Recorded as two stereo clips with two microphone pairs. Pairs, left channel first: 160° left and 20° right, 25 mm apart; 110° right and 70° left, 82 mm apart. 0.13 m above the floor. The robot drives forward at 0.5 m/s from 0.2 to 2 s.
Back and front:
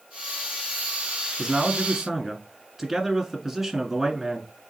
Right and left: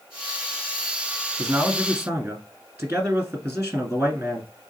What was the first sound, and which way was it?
A man speaking, 45° left.